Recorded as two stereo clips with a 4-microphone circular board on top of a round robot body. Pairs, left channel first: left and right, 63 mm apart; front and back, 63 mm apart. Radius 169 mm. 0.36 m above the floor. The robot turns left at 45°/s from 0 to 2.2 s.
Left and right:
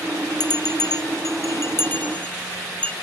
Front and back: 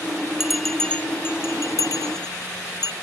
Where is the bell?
100° left; by 2.9 s 15° left.